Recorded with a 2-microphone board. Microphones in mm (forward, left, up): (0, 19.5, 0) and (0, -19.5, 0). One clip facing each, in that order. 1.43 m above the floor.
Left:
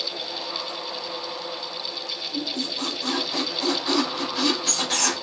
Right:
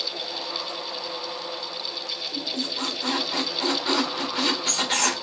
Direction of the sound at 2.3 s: 30° right (ahead or behind).